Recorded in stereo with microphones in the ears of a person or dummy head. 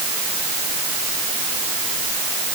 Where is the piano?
No piano in this recording.